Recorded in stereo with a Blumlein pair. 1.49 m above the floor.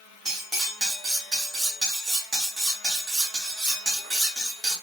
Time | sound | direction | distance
0.2 | cutlery clinking | 5° right | 1.9 m